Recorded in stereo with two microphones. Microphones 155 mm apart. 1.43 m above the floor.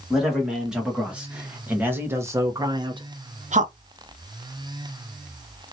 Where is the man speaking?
5° right (ahead or behind), 2 m; by 3.7 s 60° right (ahead or behind), 0.5 m.